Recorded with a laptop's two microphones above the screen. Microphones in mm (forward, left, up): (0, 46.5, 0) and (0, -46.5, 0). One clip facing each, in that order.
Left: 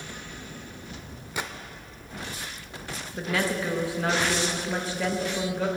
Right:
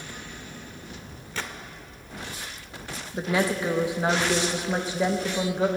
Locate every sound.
1.4 s a gunshot: 15° left (ahead or behind), 0.7 m
3.1 s a woman speaking: 20° right (ahead or behind), 0.9 m